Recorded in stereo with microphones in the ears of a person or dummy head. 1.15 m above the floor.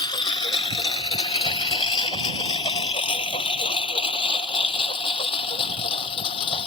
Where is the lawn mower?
25° left (ahead or behind); by 6.7 s 30° left (ahead or behind).